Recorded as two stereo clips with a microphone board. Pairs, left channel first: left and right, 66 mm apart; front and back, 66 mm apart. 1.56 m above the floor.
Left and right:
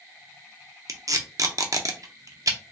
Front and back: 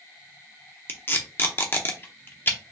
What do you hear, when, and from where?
0.9 s tape being pulled: 60° right, 0.7 m